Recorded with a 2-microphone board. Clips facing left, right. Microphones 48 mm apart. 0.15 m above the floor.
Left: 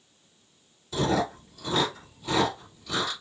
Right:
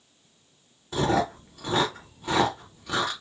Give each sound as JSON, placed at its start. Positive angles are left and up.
{"t": 0.9, "sound": "chewing", "side_deg": -50, "distance_m": 1.9}